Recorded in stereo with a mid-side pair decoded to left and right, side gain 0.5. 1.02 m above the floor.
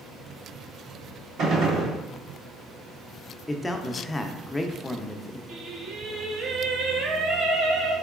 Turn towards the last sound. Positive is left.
turn(degrees=-65)